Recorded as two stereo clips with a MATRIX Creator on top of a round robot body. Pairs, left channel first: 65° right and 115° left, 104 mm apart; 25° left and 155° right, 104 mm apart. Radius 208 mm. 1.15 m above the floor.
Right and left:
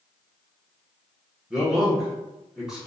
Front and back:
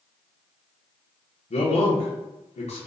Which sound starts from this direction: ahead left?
A man speaking, at 1.5 s.